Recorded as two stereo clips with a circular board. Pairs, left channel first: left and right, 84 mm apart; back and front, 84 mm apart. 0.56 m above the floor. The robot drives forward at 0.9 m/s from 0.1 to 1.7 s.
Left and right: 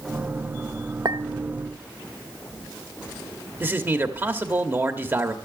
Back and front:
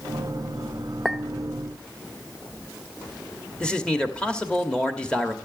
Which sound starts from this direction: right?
A clink, at 1.1 s.